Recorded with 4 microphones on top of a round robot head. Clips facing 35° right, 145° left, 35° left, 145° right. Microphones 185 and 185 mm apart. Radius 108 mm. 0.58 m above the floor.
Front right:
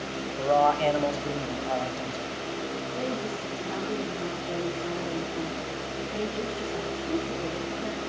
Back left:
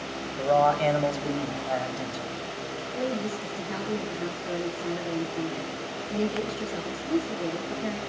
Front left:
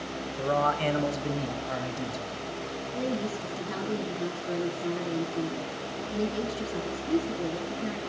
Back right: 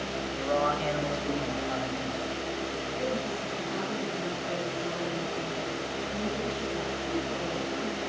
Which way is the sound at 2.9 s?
60° left.